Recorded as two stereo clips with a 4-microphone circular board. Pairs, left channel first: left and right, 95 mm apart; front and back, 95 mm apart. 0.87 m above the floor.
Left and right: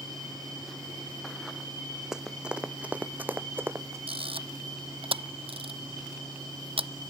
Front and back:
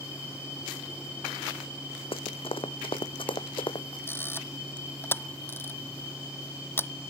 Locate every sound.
2.1 s running footsteps: 5° right; by 4.0 s 25° right
4.1 s a camera shutter: 65° right